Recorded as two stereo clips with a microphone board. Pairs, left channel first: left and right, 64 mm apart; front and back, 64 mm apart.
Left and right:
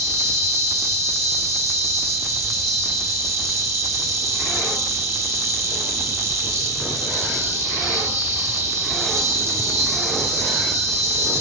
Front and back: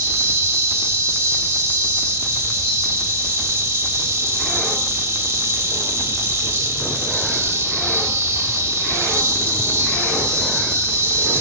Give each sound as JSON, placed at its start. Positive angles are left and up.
{"t": 0.0, "sound": "an insect", "azimuth_deg": -130, "distance_m": 3.5}